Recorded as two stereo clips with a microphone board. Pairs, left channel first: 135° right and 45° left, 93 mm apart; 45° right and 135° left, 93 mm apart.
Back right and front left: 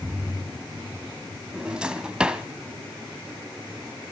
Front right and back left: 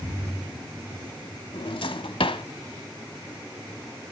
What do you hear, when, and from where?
1.5 s a drawer: 35° right, 0.9 m